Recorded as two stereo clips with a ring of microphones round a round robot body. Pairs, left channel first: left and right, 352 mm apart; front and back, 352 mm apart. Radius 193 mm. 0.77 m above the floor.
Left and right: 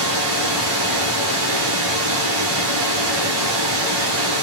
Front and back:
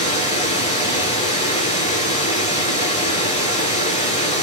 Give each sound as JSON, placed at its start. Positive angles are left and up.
{"t": 0.0, "sound": "running water", "azimuth_deg": -70, "distance_m": 5.0}